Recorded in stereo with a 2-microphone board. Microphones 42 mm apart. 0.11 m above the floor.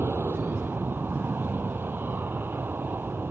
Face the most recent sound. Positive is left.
turn(degrees=-60)  # may be behind; listen again after turning